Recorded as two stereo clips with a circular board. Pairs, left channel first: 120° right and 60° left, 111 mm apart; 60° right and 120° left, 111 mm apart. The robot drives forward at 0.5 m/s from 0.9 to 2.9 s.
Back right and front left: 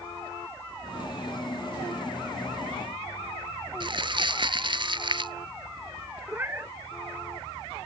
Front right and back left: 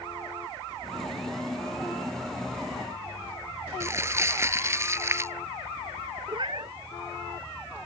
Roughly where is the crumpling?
Ahead left.